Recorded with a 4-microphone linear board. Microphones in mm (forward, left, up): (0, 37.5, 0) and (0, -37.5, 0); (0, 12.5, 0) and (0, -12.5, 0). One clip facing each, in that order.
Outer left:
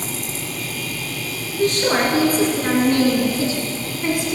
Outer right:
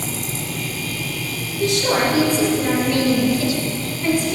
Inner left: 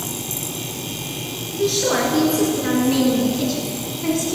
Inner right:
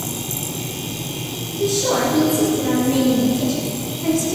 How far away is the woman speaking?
About 2.5 m.